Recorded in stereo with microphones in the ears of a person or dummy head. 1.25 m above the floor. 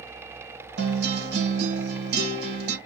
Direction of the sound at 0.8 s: 55° right (ahead or behind).